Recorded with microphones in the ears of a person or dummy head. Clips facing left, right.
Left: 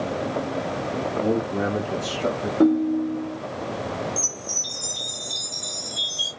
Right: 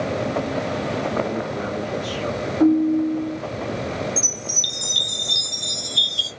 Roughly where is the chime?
Right.